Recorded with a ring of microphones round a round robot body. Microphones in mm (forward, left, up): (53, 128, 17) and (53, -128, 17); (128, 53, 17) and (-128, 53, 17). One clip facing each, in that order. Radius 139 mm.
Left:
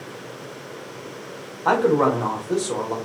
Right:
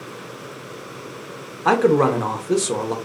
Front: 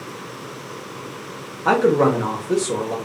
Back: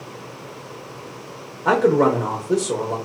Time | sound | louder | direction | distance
1.6 | a man speaking | right 2 dB, even | 80° right | 0.6 m